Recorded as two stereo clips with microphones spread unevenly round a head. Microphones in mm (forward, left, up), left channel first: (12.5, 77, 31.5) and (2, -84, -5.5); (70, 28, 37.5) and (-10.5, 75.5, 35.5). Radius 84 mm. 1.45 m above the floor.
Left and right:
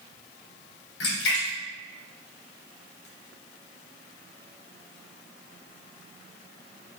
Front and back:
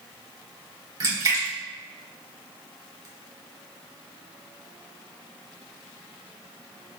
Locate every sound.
1.0 s a splash: 105° left, 3 m